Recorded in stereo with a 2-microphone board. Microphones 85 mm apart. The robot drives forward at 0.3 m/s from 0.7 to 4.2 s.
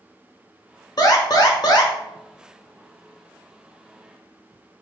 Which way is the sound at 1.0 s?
50° left (ahead or behind).